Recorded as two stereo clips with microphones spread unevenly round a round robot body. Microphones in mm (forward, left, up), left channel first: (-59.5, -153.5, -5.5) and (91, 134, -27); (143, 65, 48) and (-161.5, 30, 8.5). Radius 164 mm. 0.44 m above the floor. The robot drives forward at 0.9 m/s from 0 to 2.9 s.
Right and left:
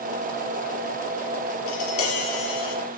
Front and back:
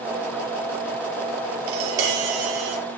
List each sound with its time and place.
1.7 s tapping: 165° right, 5 m; by 2.8 s 170° right, 6 m